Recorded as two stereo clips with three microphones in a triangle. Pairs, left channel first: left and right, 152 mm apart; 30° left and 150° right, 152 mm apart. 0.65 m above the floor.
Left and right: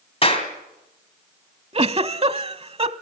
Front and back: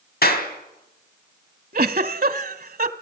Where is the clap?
35° left, 3.5 m.